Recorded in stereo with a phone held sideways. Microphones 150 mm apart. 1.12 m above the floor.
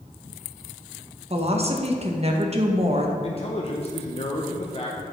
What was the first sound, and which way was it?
A woman speaking, 45° right (ahead or behind).